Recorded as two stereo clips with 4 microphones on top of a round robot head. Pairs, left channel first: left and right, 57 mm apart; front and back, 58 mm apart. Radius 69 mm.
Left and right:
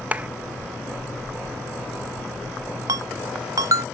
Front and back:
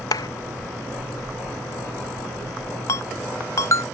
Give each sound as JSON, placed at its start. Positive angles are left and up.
{"t": 0.1, "sound": "a clap", "azimuth_deg": -20}
{"t": 2.9, "sound": "a ringtone", "azimuth_deg": -50}